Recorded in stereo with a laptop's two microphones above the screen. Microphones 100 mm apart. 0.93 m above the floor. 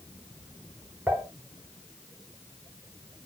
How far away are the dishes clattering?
About 5 m.